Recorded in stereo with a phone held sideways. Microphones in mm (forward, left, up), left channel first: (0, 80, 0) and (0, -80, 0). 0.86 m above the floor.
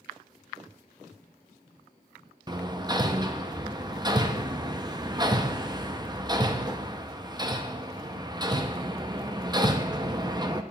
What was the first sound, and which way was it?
Hammering, 25° right (ahead or behind).